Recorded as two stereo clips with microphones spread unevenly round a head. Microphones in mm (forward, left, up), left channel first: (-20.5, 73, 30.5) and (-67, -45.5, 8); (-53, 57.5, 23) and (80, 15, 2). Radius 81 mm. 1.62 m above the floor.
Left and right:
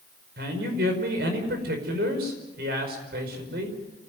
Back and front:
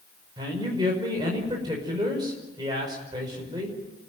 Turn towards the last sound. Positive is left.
turn(degrees=-85)